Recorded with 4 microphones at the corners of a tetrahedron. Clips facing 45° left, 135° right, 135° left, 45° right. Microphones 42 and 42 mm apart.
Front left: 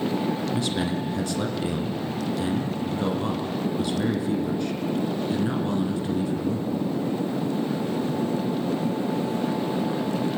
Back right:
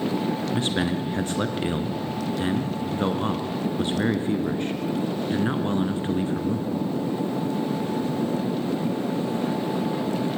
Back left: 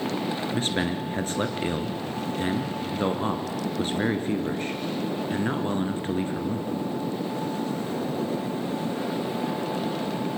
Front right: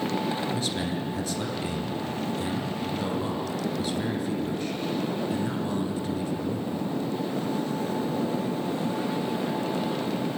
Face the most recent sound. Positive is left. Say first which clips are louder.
# back right 1 dB, back left 3 dB
turn(degrees=175)